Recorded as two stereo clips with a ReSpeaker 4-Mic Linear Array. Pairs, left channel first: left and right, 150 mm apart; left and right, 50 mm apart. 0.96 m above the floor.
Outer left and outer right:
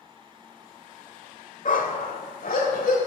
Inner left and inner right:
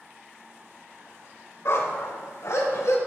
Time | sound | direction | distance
1.6 | a dog barking | 60° left (ahead or behind) | 1.1 m